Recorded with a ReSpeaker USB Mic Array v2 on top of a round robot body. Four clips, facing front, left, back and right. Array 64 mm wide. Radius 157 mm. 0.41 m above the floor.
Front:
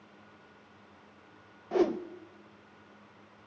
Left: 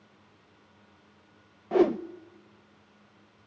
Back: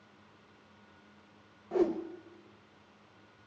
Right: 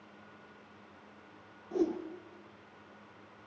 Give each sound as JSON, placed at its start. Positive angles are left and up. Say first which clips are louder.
{"t": 1.7, "sound": "a whoosh", "louder": "left 9 dB, front 2 dB", "azimuth_deg": 75, "distance_m": 0.8}